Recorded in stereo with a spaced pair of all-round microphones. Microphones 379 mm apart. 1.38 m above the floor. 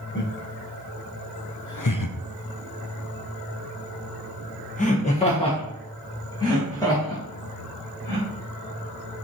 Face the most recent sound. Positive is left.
turn(degrees=5)  # may be behind; listen again after turning